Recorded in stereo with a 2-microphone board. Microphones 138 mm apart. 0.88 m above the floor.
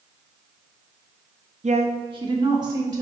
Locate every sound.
1.6 s a woman speaking: 55° right (ahead or behind), 0.7 m; by 3.0 s 30° right (ahead or behind), 2.5 m